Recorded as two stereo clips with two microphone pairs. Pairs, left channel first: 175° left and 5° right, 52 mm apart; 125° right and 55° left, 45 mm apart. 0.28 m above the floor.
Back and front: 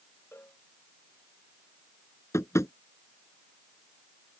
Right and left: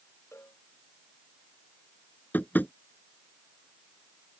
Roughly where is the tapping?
Behind.